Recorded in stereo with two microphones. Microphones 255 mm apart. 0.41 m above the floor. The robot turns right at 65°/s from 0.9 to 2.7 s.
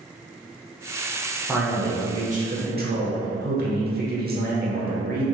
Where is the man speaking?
Straight behind, 1.0 m; by 5.2 s 100° right, 1.0 m.